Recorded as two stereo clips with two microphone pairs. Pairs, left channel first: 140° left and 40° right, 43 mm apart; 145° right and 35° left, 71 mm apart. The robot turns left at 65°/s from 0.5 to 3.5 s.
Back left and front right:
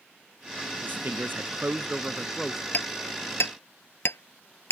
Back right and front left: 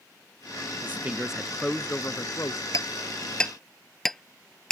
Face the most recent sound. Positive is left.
turn(degrees=130)